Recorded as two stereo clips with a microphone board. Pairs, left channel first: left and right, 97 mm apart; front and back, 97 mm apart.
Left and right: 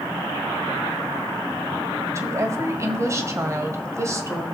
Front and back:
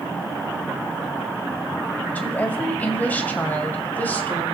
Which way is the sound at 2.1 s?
60° right.